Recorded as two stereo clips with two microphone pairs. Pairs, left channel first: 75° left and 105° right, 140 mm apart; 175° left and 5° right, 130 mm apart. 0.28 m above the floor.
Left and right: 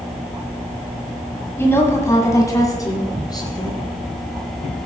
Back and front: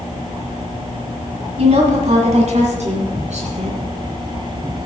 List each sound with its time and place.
1.6 s a woman speaking: straight ahead, 1.7 m; by 3.8 s 15° left, 3 m